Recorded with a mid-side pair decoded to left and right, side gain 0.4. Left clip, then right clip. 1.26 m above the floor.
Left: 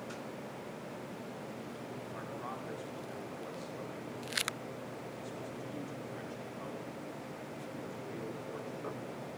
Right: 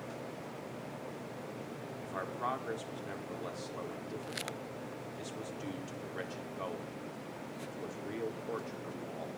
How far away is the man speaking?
About 4.5 m.